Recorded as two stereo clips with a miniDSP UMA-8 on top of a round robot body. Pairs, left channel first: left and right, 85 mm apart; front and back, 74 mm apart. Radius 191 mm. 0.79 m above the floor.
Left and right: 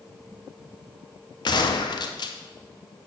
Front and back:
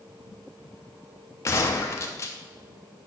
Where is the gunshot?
55° left, 0.6 m.